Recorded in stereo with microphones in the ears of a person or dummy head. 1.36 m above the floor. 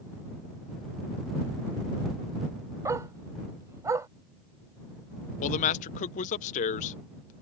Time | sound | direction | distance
2.9 | a dog barking | 15° right (ahead or behind) | ?
5.4 | a man speaking | 40° left (ahead or behind) | ?